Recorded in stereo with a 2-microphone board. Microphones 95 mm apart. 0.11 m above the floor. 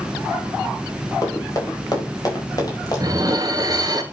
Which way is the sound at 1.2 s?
35° left (ahead or behind).